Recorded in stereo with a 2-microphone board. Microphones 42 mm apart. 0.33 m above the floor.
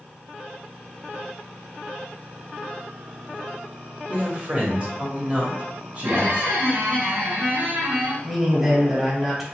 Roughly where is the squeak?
Right.